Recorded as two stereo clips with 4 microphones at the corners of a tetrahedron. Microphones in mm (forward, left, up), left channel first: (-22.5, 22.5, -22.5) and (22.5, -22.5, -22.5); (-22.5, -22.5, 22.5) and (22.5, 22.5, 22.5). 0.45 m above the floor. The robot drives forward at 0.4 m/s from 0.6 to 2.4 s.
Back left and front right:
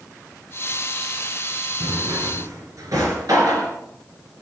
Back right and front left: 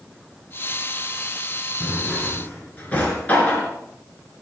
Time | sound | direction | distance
1.8 | a drawer | 65° right | 3.5 m